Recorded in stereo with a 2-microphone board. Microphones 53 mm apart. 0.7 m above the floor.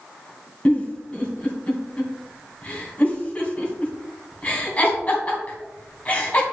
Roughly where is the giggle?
Left.